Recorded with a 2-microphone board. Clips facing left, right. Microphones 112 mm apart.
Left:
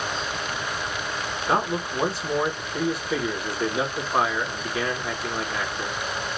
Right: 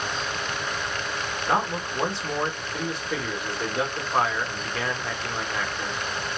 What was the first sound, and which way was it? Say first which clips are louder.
A man speaking: left 1 dB; 5° left (ahead or behind).